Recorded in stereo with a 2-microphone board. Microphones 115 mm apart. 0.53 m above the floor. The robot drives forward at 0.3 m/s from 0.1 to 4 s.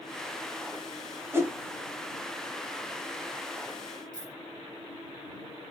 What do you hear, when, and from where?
1.3 s a whoosh: 25° right (ahead or behind), 0.8 m; by 1.6 s 20° right (ahead or behind), 0.9 m
4.1 s a dropped coin: 35° right (ahead or behind), 1.7 m